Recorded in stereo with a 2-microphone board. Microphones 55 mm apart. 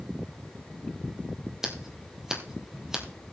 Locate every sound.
1.6 s scissors: 10° right (ahead or behind), 1.7 m